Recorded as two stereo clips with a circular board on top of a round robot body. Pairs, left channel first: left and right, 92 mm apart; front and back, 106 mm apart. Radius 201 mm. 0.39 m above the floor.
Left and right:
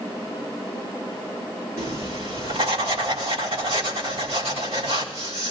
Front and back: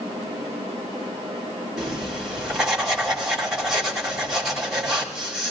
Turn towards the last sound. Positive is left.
turn(degrees=-95)